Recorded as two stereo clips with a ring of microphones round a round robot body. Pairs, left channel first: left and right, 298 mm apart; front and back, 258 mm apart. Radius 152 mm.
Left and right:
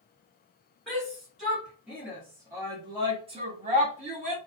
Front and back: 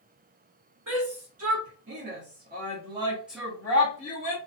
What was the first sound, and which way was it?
A shout, straight behind.